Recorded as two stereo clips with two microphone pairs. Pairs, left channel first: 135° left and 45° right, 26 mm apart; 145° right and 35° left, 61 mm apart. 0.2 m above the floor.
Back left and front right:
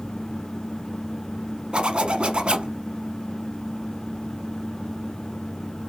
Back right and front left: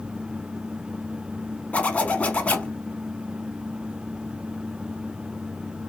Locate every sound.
1.7 s a zipper: 85° right, 0.9 m